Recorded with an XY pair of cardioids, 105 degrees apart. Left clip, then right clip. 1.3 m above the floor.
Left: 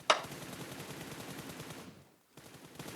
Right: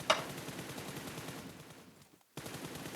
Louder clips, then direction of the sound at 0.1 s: Left 2 dB; 35° left.